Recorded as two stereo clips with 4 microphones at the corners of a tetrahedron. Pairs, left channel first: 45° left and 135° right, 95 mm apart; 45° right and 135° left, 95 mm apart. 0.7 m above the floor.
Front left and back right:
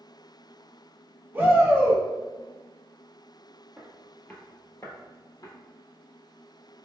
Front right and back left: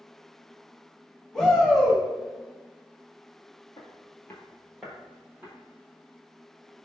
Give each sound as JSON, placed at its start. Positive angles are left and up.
{"t": 1.3, "sound": "a shout", "azimuth_deg": -120, "distance_m": 1.2}
{"t": 3.8, "sound": "footsteps", "azimuth_deg": -50, "distance_m": 0.9}